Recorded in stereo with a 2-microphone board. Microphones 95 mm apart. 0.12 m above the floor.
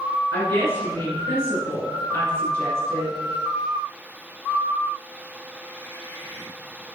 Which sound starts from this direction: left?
A woman speaking, at 0.3 s.